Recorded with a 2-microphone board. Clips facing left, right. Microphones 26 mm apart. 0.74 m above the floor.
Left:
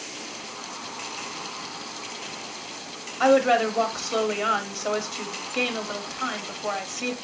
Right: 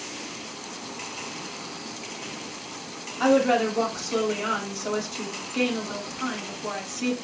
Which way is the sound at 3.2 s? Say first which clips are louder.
Left 2 dB; 20° left (ahead or behind).